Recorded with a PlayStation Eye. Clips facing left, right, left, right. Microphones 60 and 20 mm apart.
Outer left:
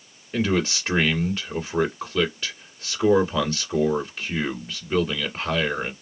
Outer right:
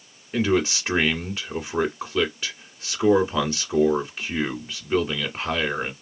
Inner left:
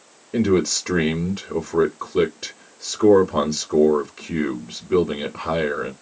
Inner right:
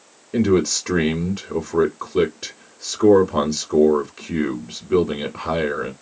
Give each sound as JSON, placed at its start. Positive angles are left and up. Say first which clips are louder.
{"t": 0.3, "sound": "a man speaking", "louder": "outer right 1 dB, inner right 1 dB", "side_deg": -5, "distance_m": 1.6}